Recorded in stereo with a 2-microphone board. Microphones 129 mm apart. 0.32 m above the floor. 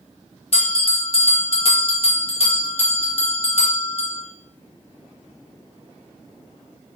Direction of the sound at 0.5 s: 50° left (ahead or behind).